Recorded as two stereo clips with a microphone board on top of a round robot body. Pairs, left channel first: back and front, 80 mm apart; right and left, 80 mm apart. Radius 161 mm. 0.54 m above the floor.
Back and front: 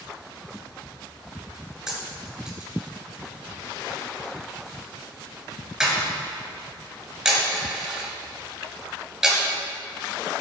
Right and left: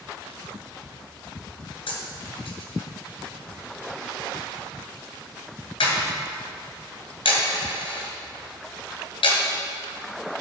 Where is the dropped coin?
85° right, 2.5 m.